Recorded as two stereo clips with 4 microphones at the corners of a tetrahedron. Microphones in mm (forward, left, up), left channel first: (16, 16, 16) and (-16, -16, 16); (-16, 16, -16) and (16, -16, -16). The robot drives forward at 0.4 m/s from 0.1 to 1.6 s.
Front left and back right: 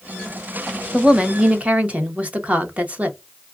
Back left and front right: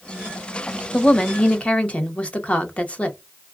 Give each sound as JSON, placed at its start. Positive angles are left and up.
{"t": 0.9, "sound": "a woman speaking", "azimuth_deg": -175, "distance_m": 0.6}